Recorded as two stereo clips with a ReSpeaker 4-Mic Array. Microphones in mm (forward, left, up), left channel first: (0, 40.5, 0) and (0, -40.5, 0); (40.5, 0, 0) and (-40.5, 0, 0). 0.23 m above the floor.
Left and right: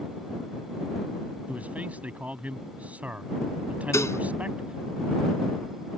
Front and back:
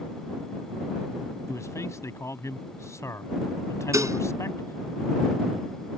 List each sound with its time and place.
1.5 s a man speaking: 25° right
3.9 s dishes clattering: 140° left